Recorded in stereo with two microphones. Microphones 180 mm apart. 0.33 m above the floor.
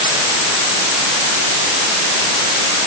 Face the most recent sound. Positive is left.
No sound to turn to.